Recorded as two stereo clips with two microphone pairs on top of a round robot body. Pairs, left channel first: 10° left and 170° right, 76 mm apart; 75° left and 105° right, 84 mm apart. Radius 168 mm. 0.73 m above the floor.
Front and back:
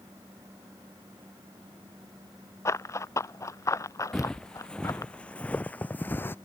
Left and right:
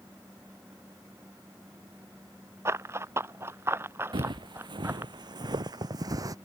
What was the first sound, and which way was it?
Running footsteps, 45° right.